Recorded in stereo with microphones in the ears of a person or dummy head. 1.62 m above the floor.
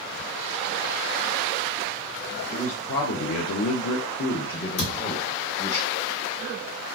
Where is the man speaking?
35° left (ahead or behind), 0.7 m; by 5.8 s 30° left (ahead or behind), 1.3 m.